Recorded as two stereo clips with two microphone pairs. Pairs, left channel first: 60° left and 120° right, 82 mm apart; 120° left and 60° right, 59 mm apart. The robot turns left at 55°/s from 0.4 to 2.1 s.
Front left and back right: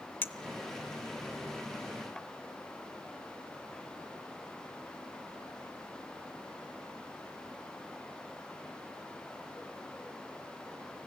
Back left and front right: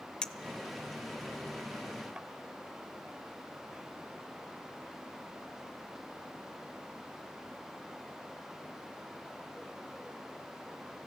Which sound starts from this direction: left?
A clink, at 0.2 s.